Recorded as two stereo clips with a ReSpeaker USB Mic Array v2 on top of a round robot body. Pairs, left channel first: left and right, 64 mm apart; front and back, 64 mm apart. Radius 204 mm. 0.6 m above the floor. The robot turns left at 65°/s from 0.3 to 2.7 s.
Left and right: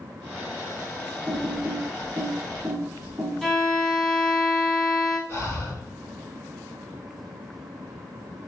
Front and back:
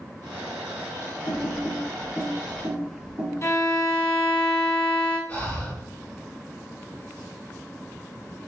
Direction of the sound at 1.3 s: 25° right.